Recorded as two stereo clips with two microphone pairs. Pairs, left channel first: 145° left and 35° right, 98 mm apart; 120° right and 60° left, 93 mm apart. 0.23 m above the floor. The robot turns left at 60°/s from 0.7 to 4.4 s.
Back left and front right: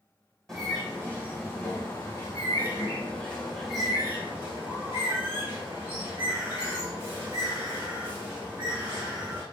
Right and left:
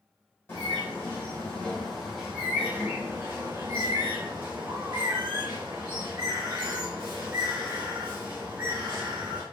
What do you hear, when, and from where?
0.5 s a bird: 130° right, 1.4 m; by 9.4 s 5° left, 1.4 m